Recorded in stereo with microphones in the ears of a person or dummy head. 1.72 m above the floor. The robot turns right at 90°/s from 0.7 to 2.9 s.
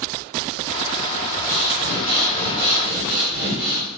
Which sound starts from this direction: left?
Breathing, at 1.5 s.